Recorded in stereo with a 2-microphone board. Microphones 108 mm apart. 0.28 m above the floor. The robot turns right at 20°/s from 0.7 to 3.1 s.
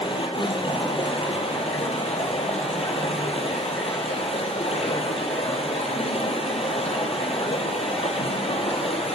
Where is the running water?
55° left, 2 m; by 9.2 s 105° left, 2 m.